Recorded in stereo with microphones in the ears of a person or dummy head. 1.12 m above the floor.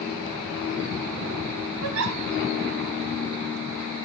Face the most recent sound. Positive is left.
turn(degrees=-80)